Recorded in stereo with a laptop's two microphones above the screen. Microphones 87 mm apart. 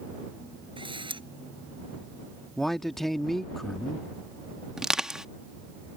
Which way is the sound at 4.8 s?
5° right (ahead or behind).